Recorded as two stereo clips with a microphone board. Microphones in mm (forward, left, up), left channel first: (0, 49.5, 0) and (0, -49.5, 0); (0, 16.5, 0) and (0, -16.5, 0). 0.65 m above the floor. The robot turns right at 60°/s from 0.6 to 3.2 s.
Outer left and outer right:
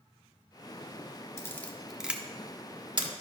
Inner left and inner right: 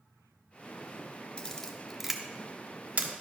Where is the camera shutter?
25° left (ahead or behind), 0.9 m; by 3.1 s 55° right (ahead or behind), 0.9 m.